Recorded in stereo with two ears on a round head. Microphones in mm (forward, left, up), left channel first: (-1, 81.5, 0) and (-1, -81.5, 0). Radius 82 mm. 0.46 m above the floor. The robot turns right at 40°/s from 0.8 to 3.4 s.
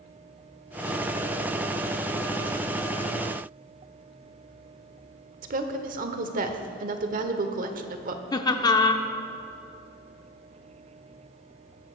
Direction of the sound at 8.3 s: 20° left (ahead or behind).